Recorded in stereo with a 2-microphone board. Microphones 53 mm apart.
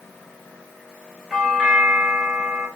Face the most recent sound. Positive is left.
turn(degrees=-5)  # may be behind; listen again after turning